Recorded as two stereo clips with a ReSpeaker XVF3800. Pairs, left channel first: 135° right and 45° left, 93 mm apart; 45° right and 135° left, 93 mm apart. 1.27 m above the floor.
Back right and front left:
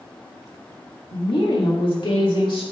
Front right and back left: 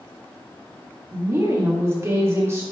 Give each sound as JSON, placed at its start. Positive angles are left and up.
{"t": 1.1, "sound": "a woman speaking", "azimuth_deg": -165, "distance_m": 1.8}